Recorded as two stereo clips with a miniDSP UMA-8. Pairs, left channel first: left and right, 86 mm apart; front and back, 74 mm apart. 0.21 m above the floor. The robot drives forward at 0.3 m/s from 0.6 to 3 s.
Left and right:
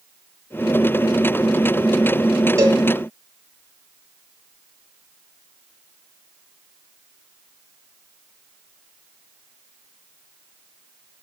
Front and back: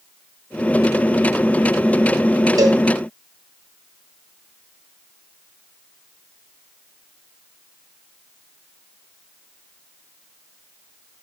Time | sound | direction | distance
2.6 | a cowbell | 145° right | 3.5 m